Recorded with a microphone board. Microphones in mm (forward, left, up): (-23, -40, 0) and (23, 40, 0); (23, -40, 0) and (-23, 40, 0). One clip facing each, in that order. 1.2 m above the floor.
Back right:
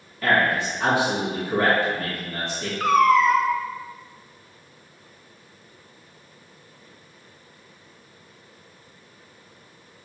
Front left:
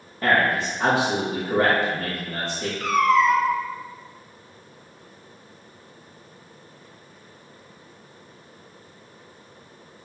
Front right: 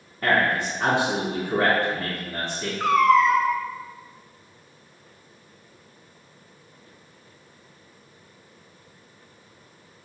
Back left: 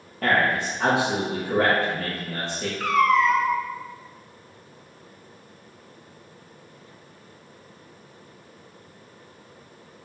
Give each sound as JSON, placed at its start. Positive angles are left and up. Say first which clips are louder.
{"t": 0.2, "sound": "a man speaking", "louder": "even, even", "azimuth_deg": 120, "distance_m": 1.4}
{"t": 2.8, "sound": "a cat meowing", "louder": "back right 2 dB, front right 2 dB", "azimuth_deg": -120, "distance_m": 0.5}